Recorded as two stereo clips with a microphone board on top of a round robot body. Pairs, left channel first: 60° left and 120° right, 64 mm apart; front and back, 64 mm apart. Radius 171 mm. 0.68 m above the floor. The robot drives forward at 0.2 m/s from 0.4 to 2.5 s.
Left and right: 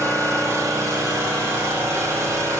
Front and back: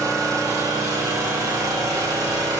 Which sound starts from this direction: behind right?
An engine running, at 0.0 s.